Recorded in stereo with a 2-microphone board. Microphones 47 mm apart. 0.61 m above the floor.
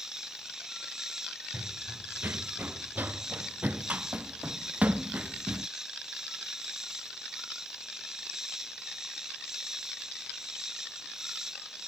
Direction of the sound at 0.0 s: 15° right (ahead or behind).